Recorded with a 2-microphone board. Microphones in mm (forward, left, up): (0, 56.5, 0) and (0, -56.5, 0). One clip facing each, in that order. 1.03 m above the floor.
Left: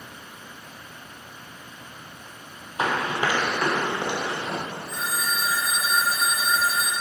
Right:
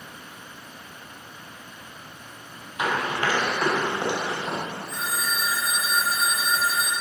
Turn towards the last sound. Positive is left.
turn(degrees=50)  # may be behind; listen again after turning